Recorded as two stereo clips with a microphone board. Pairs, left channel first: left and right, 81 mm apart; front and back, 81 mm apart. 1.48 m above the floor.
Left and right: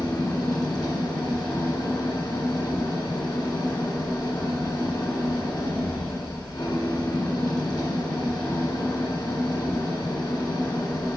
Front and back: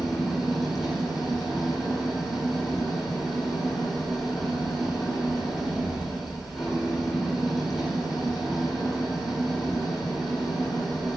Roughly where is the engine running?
Left.